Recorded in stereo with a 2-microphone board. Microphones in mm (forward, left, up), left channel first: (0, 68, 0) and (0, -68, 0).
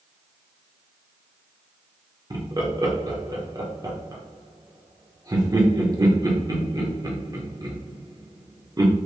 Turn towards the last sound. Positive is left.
turn(degrees=-30)  # may be behind; listen again after turning